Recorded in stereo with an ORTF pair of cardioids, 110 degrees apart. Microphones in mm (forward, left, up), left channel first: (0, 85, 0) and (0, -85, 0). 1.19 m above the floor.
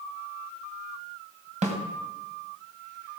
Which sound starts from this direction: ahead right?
A snare drum, at 1.6 s.